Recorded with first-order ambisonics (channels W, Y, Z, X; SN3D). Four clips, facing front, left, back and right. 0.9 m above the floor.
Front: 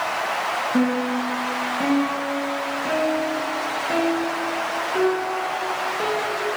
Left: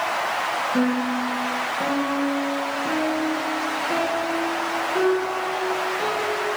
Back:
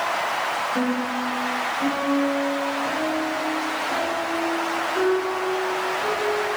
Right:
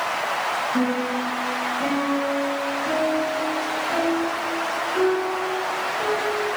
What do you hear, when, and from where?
0.7 s a piano: 15° left, 3.5 m